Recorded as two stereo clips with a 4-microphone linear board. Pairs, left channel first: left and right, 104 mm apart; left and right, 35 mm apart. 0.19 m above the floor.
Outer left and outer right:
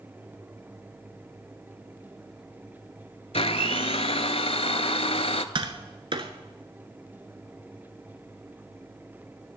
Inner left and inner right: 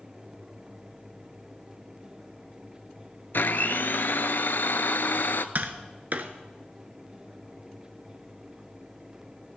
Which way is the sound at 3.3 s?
75° left (ahead or behind).